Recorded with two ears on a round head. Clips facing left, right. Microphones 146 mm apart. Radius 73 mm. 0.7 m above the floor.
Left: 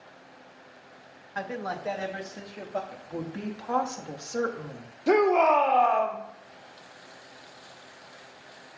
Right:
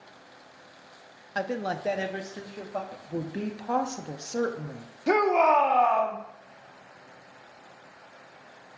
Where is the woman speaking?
25° right (ahead or behind), 0.8 m.